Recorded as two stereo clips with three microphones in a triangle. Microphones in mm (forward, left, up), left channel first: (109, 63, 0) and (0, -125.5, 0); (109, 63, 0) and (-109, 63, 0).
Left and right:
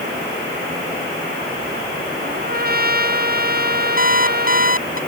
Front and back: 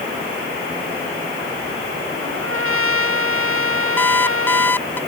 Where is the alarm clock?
80° left.